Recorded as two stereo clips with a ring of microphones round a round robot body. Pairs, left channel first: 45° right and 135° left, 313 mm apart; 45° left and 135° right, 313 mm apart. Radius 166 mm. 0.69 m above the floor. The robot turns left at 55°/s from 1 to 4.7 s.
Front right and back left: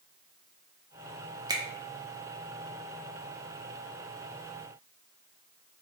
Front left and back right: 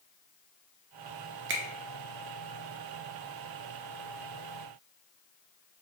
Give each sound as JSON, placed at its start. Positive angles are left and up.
{"t": 1.5, "sound": "a finger snap", "azimuth_deg": -155, "distance_m": 0.6}